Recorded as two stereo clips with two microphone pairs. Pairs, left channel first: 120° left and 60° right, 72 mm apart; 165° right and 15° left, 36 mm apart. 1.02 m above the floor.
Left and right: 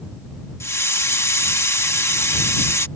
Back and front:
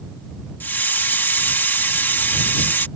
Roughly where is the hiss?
Behind.